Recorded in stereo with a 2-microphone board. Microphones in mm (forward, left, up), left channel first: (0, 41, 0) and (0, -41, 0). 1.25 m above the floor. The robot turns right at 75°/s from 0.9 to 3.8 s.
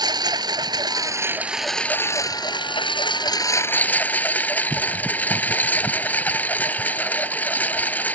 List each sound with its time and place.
0.0 s a lawn mower: 55° right; by 8.2 s 160° left